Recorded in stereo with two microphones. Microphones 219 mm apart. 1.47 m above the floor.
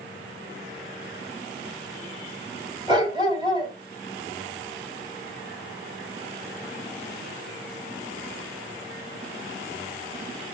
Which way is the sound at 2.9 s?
20° right (ahead or behind).